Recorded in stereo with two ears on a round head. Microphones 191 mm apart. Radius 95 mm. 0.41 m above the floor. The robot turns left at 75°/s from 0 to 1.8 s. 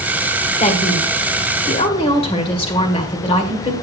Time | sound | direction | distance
0.6 | a woman speaking | 130° left | 1.8 m